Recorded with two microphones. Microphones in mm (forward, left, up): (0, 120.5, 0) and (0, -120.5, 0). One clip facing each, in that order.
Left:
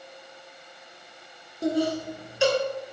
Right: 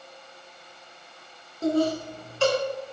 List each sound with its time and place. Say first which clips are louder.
1.6 s laughter: right 1 dB; 15° left (ahead or behind), 1.2 m